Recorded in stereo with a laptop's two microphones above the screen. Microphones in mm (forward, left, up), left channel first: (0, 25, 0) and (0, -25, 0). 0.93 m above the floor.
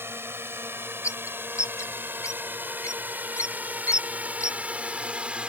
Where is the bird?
75° left (ahead or behind).